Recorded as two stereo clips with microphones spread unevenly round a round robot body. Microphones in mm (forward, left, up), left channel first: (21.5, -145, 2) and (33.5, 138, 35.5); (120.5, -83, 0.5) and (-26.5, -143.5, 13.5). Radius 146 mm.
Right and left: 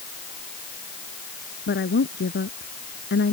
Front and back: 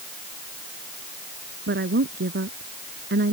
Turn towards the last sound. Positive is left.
turn(degrees=-150)